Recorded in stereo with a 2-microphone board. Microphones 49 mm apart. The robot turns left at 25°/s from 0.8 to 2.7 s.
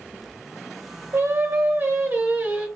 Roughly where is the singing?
Right.